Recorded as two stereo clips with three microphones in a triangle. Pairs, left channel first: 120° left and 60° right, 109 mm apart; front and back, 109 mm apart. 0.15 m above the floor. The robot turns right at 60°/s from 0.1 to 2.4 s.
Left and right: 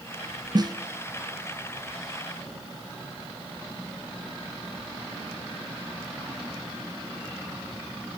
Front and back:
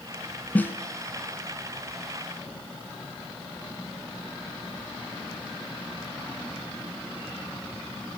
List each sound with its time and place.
0.6 s a snare drum: 70° right, 1.1 m; by 0.7 s 55° right, 1.1 m